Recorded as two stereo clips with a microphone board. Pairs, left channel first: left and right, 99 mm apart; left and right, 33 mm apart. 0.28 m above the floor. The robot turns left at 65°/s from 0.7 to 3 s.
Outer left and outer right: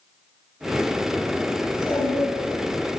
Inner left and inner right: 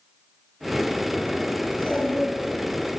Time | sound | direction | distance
1.6 | a child speaking | 40° left (ahead or behind) | 1.3 m